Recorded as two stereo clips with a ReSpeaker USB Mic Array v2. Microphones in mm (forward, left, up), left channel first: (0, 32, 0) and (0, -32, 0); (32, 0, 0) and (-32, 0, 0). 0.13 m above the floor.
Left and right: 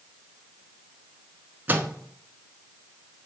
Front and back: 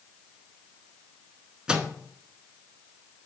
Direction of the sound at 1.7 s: 115° right.